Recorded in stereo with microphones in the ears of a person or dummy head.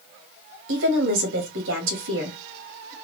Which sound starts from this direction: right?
A woman speaking, at 0.7 s.